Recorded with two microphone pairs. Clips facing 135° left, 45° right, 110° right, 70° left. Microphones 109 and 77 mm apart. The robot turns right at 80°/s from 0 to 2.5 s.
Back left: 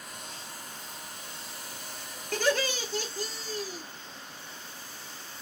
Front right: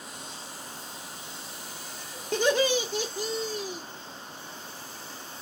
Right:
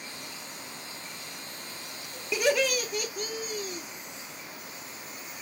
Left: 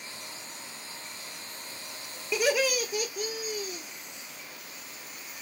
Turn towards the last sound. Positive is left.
turn(degrees=-5)